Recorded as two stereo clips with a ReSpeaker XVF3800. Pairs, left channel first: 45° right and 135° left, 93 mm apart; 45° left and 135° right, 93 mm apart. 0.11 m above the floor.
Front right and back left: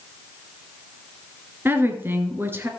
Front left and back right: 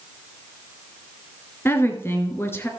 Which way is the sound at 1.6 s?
90° left.